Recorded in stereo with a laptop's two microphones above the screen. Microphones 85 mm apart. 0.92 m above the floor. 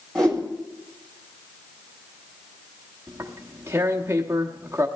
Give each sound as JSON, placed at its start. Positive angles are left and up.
{"t": 0.1, "sound": "a whoosh", "side_deg": 10, "distance_m": 2.0}
{"t": 3.1, "sound": "tearing paper", "side_deg": -30, "distance_m": 1.0}